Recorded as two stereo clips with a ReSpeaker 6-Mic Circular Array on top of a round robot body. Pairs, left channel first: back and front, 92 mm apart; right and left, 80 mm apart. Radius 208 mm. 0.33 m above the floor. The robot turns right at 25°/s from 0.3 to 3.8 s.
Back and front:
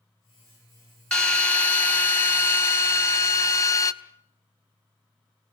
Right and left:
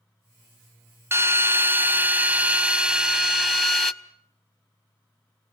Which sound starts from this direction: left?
A drill, at 1.1 s.